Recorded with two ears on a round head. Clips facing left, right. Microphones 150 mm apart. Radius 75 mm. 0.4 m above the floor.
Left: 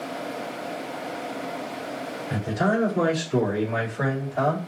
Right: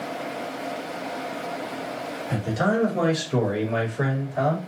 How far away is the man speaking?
About 1.8 m.